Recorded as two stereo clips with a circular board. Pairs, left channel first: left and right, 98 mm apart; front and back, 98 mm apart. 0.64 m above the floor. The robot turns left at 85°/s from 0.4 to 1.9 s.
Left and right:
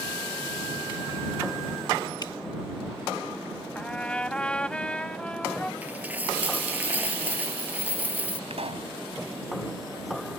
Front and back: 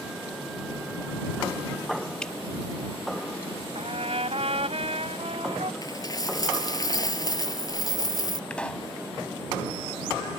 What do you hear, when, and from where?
2.2 s dripping: 75° left
3.8 s a trumpet: 170° left
5.8 s a dropped coin: 25° right
8.5 s a pop: 80° right